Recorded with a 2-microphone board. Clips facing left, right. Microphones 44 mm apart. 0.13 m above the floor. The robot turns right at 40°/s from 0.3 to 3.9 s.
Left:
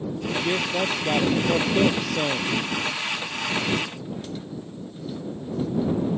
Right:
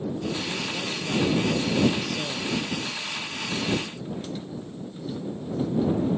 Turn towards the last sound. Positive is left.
turn(degrees=-155)